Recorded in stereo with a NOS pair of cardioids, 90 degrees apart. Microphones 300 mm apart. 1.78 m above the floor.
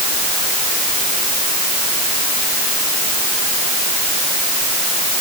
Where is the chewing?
No chewing in this recording.